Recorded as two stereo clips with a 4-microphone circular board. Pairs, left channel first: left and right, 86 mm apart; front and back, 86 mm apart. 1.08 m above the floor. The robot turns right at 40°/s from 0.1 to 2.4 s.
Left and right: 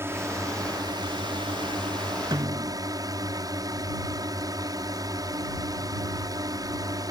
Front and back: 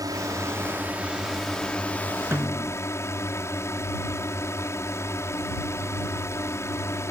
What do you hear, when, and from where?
0.0 s a drone: 145° right; by 7.1 s 55° right
2.3 s a snare drum: 120° right; by 2.8 s 115° right